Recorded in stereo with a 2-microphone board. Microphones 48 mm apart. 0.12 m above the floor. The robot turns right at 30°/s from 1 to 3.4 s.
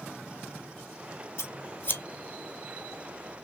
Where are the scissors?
60° left (ahead or behind), 0.9 m; by 2.0 s 40° left (ahead or behind), 0.9 m.